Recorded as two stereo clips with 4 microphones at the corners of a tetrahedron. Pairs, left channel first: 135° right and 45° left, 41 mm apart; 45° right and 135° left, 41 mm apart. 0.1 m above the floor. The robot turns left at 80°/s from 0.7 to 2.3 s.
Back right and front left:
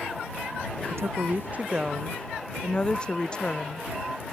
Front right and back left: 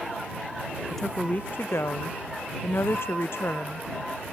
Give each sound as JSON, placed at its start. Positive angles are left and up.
{"t": 0.9, "sound": "a woman speaking", "azimuth_deg": 45}